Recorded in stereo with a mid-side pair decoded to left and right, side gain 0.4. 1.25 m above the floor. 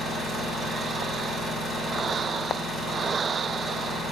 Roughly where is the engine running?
Ahead right.